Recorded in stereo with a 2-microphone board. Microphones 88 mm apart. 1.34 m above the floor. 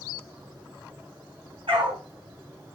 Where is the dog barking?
75° right (ahead or behind), 5 m.